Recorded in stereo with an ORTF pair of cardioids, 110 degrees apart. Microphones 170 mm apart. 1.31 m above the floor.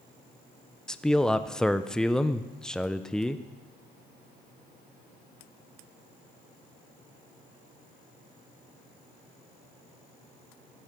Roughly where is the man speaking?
Ahead.